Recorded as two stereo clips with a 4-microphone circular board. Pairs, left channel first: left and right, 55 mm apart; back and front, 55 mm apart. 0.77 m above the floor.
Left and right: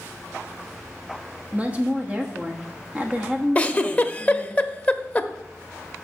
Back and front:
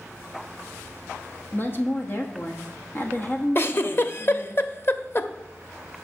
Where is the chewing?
No chewing in this recording.